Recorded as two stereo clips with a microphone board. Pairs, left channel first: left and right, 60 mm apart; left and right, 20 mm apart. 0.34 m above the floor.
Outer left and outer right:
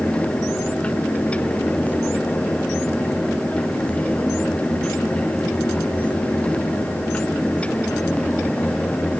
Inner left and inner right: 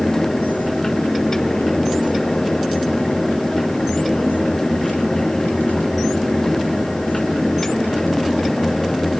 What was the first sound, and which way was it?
Only background noise.